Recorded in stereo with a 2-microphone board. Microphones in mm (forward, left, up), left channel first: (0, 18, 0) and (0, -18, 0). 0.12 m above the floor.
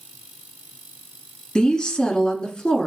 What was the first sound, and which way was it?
A woman speaking, 25° left (ahead or behind).